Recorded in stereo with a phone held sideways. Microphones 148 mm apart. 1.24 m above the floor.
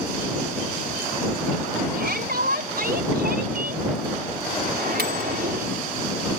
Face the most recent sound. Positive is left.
turn(degrees=-85)